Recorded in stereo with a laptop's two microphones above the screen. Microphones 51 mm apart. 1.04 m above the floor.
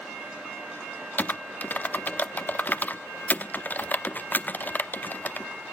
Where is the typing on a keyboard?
40° left (ahead or behind), 0.8 m.